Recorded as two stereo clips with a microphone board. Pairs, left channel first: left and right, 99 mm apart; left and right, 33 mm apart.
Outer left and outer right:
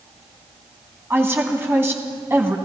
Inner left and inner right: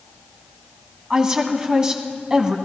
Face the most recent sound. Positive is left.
turn(degrees=-25)  # may be behind; listen again after turning